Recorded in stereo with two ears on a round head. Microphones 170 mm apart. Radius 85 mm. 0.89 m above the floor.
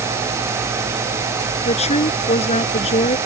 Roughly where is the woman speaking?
Left.